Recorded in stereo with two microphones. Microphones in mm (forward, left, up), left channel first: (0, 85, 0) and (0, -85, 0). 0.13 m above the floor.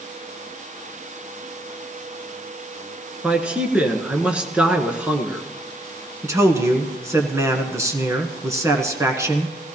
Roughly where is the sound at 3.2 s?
Centre.